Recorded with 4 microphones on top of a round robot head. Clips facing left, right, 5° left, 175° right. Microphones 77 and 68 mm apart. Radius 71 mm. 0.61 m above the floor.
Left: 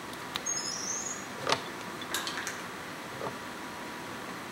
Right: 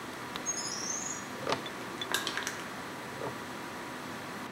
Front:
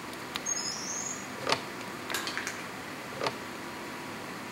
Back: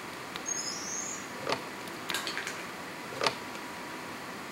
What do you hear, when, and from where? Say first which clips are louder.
0.5 s a bird: even, front 1 dB; 40° right, 2.5 m
2.1 s crushing: right 2 dB, front 1 dB; 70° right, 0.8 m